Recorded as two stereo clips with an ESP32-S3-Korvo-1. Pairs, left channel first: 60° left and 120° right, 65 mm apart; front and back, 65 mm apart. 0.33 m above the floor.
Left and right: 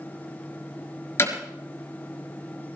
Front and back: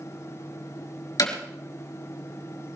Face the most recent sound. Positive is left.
turn(degrees=15)